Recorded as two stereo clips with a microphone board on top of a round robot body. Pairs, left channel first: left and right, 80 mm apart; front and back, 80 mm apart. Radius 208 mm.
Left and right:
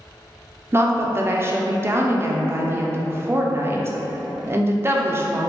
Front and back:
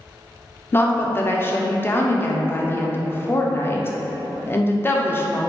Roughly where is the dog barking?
I don't hear a dog barking.